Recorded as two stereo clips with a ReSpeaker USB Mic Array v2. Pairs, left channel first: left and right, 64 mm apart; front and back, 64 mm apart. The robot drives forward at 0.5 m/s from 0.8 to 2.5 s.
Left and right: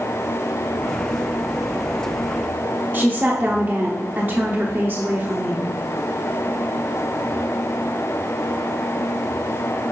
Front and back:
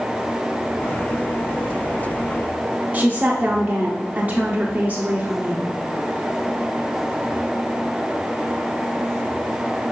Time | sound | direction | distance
2.9 | a woman speaking | 130° right | 0.9 m